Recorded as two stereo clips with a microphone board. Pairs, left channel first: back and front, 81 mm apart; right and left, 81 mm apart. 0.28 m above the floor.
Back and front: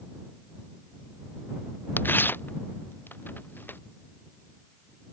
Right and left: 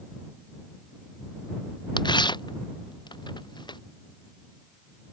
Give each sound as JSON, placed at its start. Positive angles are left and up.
{"t": 2.0, "sound": "tearing paper", "azimuth_deg": -115}